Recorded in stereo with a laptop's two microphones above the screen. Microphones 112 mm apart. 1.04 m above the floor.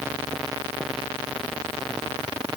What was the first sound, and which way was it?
Only background noise.